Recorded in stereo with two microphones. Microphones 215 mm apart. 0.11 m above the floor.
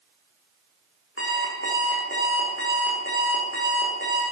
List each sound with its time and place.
1.2 s an alarm clock: 70° left (ahead or behind), 4 m